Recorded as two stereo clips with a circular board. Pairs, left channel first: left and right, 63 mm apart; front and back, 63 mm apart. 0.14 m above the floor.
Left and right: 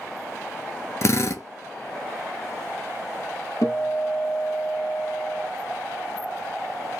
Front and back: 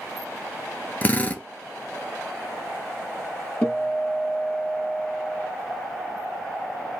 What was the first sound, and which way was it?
A drill, 65° left.